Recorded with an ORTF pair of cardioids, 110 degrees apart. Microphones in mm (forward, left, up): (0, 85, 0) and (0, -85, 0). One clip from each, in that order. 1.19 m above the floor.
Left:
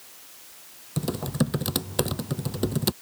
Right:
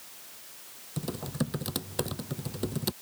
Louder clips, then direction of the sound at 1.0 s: Left 6 dB; 35° left.